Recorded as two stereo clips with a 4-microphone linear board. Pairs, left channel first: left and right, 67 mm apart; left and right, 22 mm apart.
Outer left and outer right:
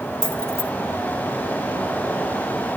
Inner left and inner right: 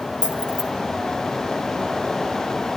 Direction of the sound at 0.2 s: 40° right (ahead or behind).